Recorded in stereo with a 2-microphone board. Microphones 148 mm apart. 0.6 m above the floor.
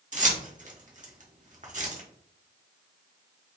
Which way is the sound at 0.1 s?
50° right (ahead or behind).